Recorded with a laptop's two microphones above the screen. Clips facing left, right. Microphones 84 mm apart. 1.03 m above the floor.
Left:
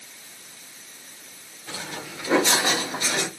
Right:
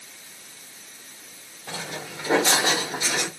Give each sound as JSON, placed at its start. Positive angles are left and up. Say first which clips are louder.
{"t": 1.7, "sound": "footsteps", "louder": "right 1 dB", "side_deg": -35, "distance_m": 1.7}